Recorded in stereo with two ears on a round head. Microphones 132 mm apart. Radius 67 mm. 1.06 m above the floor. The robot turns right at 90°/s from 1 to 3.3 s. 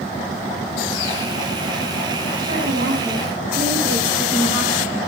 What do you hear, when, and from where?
2.4 s a woman speaking: 115° right, 8.5 m; by 5.0 s 35° right, 8.5 m